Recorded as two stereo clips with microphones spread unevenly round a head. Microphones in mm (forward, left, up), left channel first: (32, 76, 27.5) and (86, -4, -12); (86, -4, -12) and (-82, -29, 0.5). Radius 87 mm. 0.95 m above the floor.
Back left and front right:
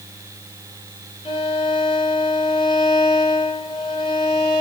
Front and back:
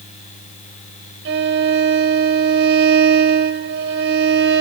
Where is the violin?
165° left, 1.4 m.